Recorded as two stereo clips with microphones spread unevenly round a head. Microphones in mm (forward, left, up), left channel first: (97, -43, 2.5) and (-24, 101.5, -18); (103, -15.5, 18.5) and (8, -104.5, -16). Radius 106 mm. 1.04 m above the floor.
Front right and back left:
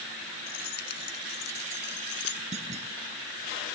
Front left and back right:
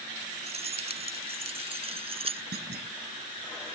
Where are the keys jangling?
95° right; by 2.4 s 90° right.